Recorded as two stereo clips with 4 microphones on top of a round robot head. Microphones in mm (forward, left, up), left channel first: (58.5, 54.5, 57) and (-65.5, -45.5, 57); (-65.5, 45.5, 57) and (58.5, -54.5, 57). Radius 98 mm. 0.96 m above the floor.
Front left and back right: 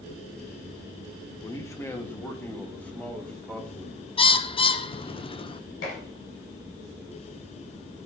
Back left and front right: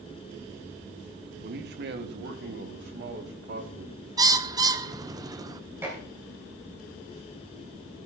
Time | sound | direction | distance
1.4 | a man speaking | 30° right | 1.3 m
4.2 | a bird | 10° left | 0.8 m
5.8 | dishes clattering | 40° left | 7 m